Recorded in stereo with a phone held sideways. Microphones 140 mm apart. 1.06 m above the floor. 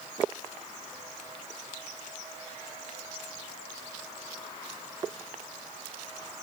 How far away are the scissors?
I don't hear scissors.